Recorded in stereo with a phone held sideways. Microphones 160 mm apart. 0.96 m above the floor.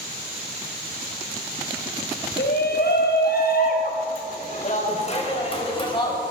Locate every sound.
2.4 s a shout: 80° left, 5 m; by 6.2 s 25° left (ahead or behind), 5.5 m